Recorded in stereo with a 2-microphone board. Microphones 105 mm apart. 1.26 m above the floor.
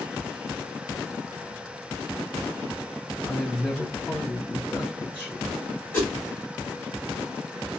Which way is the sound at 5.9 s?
20° left (ahead or behind).